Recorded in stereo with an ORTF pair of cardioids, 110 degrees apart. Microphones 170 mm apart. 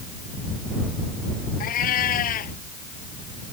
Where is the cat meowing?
60° left.